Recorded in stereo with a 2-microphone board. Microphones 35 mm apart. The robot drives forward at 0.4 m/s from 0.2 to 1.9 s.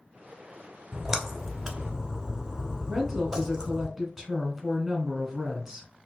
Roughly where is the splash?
Centre.